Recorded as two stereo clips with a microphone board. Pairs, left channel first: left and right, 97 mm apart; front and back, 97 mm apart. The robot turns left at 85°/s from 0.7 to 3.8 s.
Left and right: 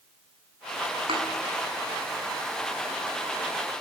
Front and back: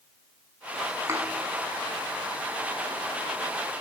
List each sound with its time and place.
1.1 s a thud: 115° right, 6 m; by 1.2 s 130° right, 6 m